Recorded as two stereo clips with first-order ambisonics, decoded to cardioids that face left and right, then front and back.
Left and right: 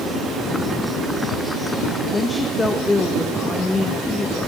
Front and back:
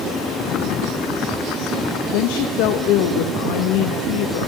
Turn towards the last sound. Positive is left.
turn(degrees=15)